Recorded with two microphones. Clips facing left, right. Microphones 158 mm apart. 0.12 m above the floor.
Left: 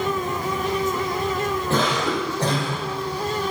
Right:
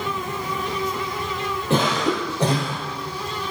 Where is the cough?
20° right (ahead or behind), 4 m.